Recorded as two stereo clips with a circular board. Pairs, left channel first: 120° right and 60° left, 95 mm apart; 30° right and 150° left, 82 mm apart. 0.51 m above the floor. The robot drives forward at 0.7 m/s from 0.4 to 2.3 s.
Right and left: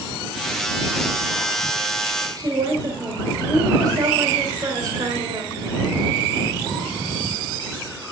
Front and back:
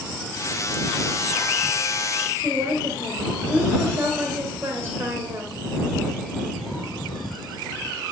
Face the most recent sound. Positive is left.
turn(degrees=100)